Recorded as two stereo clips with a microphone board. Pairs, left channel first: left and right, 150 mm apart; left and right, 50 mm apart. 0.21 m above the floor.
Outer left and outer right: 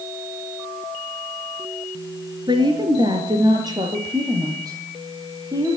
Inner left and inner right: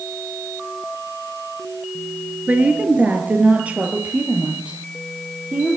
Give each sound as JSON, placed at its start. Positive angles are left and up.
{"t": 2.5, "sound": "a woman speaking", "side_deg": -30, "distance_m": 3.5}